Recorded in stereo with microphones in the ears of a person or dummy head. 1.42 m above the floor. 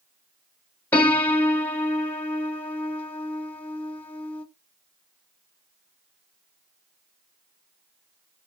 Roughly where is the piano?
Centre.